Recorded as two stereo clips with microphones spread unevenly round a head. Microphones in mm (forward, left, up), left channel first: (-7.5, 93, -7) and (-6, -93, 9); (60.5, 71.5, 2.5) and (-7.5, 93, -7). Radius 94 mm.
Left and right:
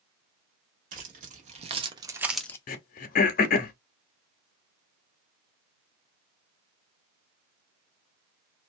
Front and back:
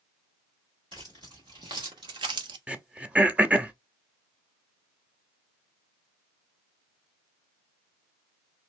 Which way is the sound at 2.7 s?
90° left.